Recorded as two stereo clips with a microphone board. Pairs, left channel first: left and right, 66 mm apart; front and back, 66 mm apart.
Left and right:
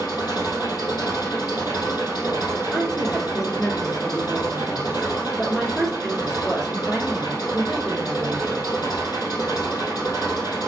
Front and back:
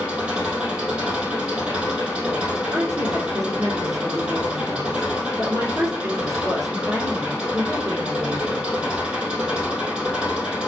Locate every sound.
0.0 s an engine running: 110° left, 4 m
2.7 s a woman speaking: straight behind, 2.5 m